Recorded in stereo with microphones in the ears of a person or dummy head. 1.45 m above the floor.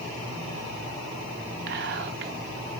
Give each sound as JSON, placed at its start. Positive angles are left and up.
{"t": 1.7, "sound": "whispering", "side_deg": -50, "distance_m": 0.5}